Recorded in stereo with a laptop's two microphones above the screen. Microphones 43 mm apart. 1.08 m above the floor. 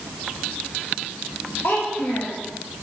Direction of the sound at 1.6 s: 60° left (ahead or behind).